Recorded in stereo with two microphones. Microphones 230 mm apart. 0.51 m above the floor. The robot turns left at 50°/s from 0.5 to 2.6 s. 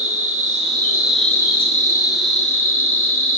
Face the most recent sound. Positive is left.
turn(degrees=105)